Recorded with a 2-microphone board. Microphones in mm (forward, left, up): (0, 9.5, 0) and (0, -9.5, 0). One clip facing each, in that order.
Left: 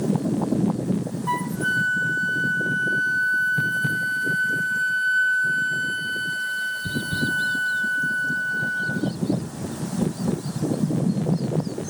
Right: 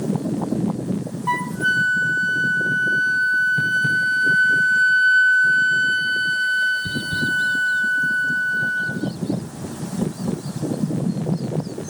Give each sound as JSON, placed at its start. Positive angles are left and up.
{"t": 1.3, "sound": "a flute", "side_deg": -25, "distance_m": 0.6}